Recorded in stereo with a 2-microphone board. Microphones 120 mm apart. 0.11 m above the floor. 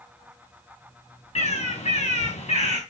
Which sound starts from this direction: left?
A bird, at 1.4 s.